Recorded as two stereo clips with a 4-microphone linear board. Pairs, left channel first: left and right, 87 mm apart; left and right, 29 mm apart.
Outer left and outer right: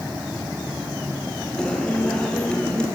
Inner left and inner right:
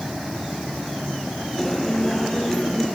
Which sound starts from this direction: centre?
A guitar, at 1.6 s.